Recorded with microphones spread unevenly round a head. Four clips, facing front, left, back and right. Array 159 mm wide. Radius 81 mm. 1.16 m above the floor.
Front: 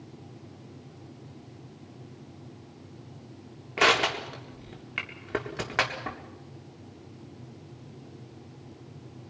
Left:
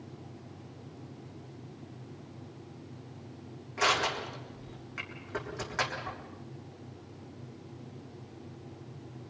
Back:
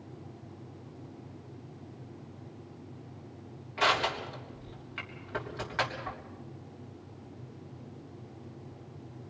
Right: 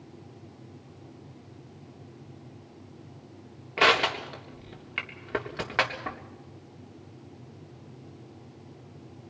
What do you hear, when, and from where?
3.8 s crushing: 40° right, 3.5 m